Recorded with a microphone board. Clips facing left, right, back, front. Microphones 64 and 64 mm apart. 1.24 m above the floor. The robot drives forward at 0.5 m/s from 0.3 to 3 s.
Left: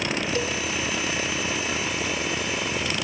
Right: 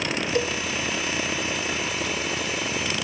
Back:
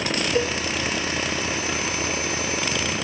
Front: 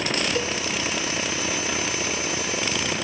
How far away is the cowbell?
About 0.6 m.